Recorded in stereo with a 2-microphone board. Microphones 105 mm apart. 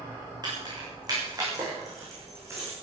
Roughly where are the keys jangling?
Right.